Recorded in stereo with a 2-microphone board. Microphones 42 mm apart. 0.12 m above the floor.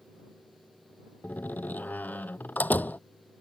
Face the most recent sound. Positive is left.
turn(degrees=40)  # may be behind; listen again after turning